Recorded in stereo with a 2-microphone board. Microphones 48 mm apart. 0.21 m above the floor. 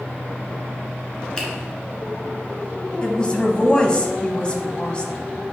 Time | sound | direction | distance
1.4 | a finger snap | 20° left (ahead or behind) | 2.5 m
3.0 | a woman speaking | 20° left (ahead or behind) | 1.1 m